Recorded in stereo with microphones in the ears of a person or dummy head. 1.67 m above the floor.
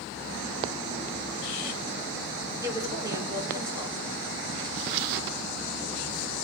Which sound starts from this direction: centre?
A woman speaking, at 2.6 s.